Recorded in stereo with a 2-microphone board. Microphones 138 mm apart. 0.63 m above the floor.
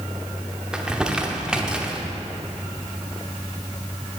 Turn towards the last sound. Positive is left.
turn(degrees=-5)  # may be behind; listen again after turning